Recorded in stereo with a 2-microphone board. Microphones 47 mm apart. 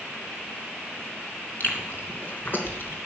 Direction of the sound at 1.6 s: 45° left (ahead or behind).